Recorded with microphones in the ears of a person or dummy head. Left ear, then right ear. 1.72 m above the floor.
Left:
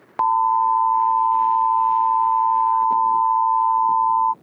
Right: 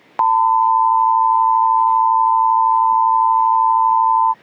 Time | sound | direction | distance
0.2 | an alarm | 25° right (ahead or behind) | ?